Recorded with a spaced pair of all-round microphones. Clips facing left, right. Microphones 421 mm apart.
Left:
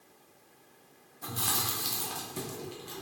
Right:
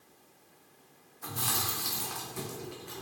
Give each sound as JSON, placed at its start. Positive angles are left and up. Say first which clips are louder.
{"t": 1.2, "sound": "chewing", "louder": "left 1 dB", "side_deg": 55, "distance_m": 0.7}